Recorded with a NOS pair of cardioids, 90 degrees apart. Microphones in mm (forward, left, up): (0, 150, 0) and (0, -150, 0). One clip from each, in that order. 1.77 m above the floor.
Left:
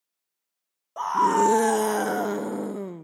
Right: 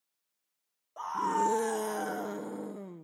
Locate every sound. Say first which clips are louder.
1.0 s a scream: left 9 dB; 55° left